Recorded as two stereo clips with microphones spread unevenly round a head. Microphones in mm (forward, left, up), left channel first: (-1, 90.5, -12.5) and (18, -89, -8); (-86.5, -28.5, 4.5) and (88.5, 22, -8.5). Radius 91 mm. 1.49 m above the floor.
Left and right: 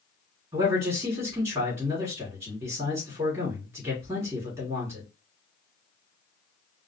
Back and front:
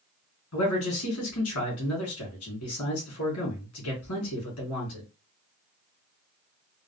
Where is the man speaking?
160° right, 2.5 m.